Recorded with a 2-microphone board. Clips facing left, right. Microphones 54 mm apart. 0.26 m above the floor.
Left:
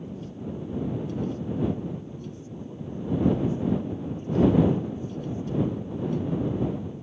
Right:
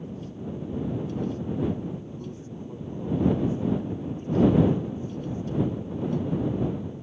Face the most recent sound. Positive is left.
turn(degrees=-20)  # may be behind; listen again after turning